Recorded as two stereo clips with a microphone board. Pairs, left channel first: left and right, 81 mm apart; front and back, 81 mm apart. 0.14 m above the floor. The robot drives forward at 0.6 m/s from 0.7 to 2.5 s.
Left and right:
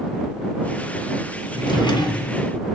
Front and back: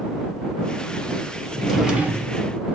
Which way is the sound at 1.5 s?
80° left.